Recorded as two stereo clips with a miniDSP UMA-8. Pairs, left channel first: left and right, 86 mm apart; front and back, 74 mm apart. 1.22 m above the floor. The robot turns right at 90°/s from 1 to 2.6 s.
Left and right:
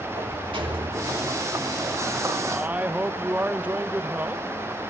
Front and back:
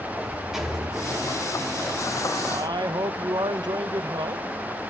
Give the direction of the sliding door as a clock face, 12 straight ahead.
3 o'clock.